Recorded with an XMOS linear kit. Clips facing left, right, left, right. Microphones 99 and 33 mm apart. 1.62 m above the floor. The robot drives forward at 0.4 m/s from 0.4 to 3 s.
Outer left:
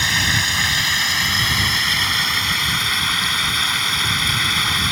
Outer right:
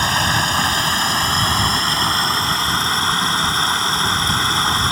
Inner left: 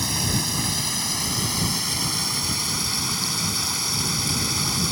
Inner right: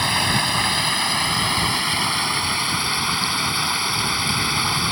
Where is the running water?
45° right (ahead or behind); by 4.9 s 35° right (ahead or behind).